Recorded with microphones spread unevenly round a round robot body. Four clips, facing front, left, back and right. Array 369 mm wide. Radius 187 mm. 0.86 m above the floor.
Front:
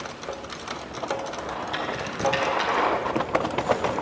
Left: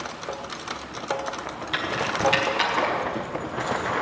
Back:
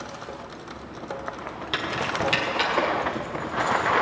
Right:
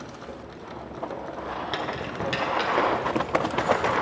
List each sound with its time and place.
1.7 s keys jangling: 130° right, 1.2 m; by 4.0 s 135° right, 3.5 m